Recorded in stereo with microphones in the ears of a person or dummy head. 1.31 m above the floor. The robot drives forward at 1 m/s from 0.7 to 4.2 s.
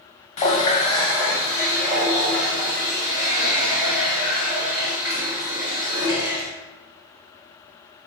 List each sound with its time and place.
0.4 s a running tap: 35° left (ahead or behind), 0.6 m; by 6.5 s 5° left (ahead or behind), 4 m